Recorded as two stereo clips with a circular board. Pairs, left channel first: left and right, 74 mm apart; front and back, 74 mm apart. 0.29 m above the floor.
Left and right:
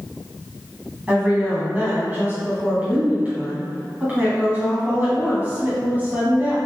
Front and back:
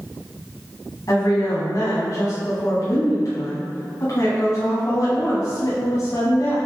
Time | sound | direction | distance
1.1 | a woman speaking | 25° right | 1.9 m